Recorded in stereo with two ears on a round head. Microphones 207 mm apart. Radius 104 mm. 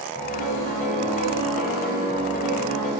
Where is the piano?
40° left (ahead or behind), 2.5 m.